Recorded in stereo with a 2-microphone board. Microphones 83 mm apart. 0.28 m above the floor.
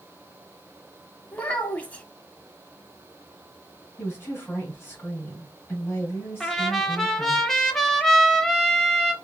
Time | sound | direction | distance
1.3 | a child speaking | 15° left (ahead or behind) | 0.9 m
4.0 | a woman speaking | 25° left (ahead or behind) | 1.7 m
6.4 | a trumpet | 5° left (ahead or behind) | 0.6 m